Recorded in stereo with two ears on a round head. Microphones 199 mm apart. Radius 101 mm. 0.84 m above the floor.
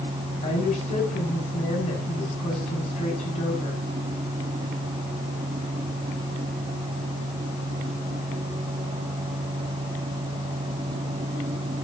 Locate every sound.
0.4 s a woman speaking: 30° left (ahead or behind), 7 m